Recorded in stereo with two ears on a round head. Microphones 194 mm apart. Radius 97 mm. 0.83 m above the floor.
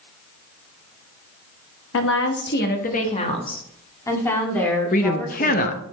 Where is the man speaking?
40° left (ahead or behind), 0.8 m.